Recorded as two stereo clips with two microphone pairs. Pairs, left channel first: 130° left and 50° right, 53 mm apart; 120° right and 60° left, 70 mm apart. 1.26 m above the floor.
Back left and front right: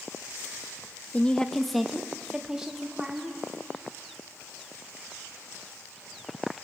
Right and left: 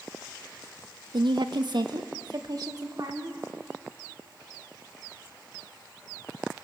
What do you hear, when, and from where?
1.1 s a woman speaking: 70° left, 0.7 m; by 3.4 s 25° left, 3 m